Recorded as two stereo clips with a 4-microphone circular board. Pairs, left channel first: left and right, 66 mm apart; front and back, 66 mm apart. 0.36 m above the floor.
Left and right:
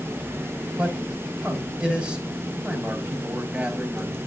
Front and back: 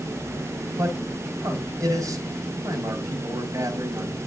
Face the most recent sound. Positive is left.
turn(degrees=-165)